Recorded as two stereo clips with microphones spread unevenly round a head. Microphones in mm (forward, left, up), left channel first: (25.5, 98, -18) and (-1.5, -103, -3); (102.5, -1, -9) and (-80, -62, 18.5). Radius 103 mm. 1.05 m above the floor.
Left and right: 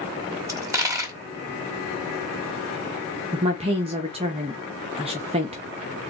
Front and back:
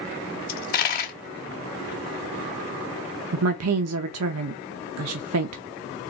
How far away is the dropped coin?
About 1.0 m.